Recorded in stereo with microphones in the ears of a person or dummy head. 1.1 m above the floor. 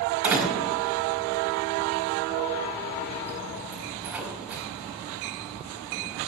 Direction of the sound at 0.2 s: 5° right (ahead or behind).